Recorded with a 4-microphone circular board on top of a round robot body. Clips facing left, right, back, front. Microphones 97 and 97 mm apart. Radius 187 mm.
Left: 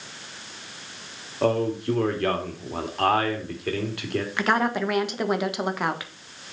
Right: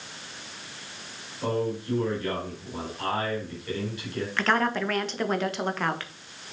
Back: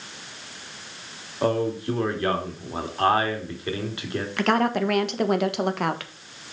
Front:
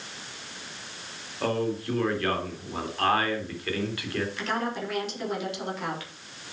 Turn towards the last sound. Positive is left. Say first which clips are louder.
# left 1 dB, back 8 dB
turn(degrees=165)